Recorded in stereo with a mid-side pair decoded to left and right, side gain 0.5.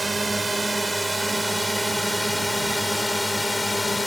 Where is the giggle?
No giggle in this recording.